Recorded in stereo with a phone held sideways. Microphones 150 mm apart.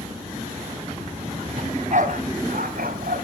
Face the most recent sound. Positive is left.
turn(degrees=-80)